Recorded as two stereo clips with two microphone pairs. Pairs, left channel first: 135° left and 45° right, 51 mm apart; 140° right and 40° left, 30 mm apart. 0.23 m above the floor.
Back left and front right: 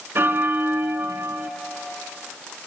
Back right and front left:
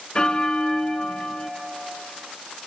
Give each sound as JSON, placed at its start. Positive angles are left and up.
{"t": 0.1, "sound": "a bell", "azimuth_deg": -85, "distance_m": 0.6}